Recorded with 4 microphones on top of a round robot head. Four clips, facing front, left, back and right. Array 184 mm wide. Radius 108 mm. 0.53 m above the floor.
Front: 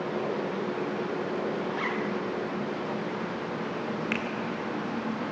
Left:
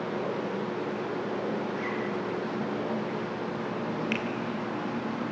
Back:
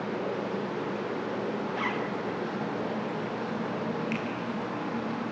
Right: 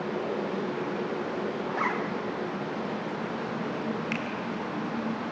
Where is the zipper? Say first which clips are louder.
Right 2 dB, front 1 dB; 110° right, 1.2 m.